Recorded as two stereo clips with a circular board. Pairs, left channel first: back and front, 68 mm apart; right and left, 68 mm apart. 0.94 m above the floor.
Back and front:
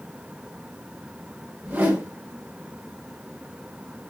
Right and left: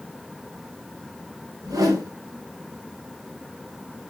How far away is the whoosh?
About 3.5 m.